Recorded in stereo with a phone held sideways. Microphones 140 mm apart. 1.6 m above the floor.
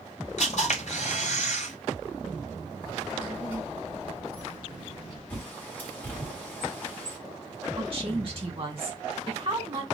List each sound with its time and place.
0.4 s a camera shutter: 55° left (ahead or behind), 2.5 m
2.8 s a child speaking: 35° left (ahead or behind), 1.3 m
5.3 s a bird: 15° left (ahead or behind), 1.8 m
7.8 s a woman speaking: 40° right (ahead or behind), 1.8 m